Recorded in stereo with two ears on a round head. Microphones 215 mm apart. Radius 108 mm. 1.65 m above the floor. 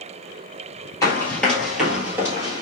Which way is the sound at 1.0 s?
15° left (ahead or behind).